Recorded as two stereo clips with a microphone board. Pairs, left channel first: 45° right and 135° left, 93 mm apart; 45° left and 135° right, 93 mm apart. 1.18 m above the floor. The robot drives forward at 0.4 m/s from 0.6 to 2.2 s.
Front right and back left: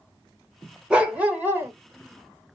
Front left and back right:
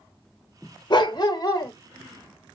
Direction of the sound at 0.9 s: 55° left.